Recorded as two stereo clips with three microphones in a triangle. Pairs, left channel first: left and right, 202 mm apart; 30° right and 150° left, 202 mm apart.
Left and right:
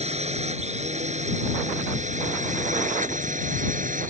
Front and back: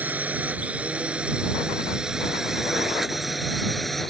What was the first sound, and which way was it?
A drone, 130° right.